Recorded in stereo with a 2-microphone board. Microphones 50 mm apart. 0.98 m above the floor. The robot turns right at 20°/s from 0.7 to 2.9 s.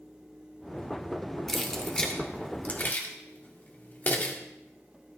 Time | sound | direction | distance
1.5 | keys jangling | 5° left (ahead or behind) | 1.7 m